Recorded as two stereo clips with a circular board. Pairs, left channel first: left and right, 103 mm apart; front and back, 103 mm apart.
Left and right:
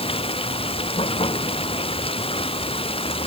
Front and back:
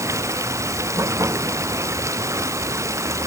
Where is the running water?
120° left.